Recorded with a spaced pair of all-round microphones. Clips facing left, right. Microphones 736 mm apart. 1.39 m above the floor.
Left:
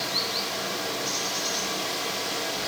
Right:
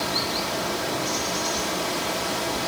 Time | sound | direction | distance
0.0 | running water | 75° right (ahead or behind) | 1.9 m